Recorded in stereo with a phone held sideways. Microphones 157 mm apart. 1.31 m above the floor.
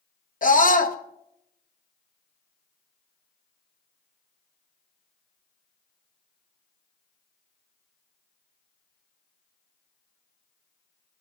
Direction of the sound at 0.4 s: 60° left (ahead or behind).